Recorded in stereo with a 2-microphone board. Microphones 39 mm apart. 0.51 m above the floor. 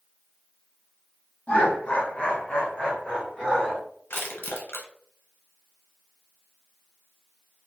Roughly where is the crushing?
Left.